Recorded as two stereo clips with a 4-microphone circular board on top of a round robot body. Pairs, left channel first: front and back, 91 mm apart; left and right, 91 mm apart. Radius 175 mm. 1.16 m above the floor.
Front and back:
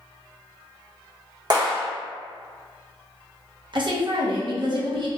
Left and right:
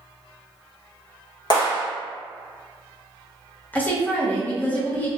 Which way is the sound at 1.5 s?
135° left.